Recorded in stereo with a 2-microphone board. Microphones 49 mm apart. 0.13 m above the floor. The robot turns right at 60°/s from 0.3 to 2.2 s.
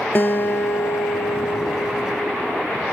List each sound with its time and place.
0.1 s a guitar: 50° left, 0.8 m; by 2.7 s 165° left, 0.8 m